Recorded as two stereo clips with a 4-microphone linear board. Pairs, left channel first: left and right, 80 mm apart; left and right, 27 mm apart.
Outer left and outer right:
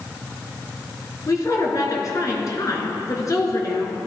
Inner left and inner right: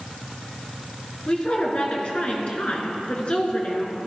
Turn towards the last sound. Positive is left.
turn(degrees=45)  # may be behind; listen again after turning